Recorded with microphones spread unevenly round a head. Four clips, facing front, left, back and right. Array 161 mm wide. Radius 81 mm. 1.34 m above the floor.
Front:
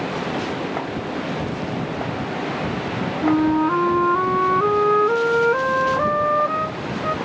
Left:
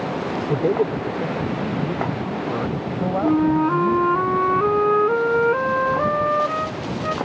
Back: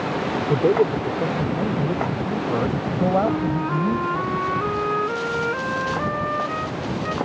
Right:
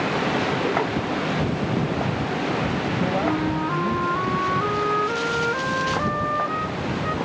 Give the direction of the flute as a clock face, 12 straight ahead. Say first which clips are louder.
Left 6 dB, front 5 dB; 11 o'clock.